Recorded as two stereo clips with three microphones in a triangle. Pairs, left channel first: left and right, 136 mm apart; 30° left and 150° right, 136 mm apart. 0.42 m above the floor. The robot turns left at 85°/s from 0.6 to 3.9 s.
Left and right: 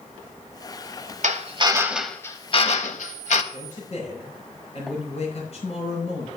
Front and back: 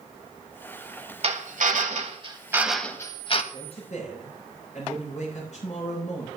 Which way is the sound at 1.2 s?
110° right.